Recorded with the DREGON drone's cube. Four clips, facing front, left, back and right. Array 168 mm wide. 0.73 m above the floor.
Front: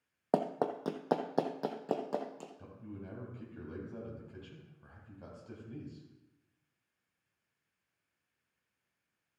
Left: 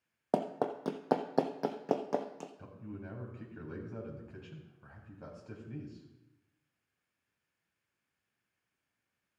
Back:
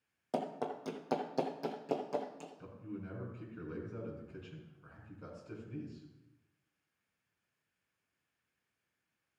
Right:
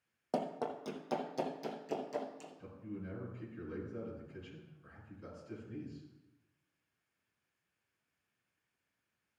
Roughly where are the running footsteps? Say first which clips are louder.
Left 4 dB, front 5 dB; ahead left.